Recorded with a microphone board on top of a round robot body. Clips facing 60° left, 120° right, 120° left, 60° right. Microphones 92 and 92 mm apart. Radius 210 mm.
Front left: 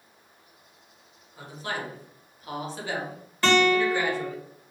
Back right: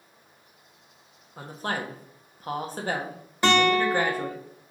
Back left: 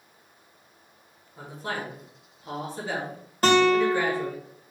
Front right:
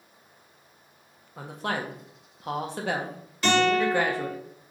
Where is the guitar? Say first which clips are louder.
Even, back left 3 dB; 170° left, 1.2 m.